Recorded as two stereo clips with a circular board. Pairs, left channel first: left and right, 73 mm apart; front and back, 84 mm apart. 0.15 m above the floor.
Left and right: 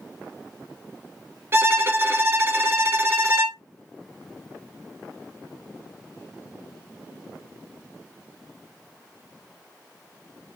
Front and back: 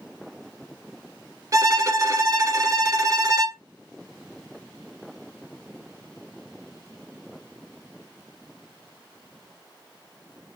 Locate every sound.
1.5 s a violin: 140° right, 0.8 m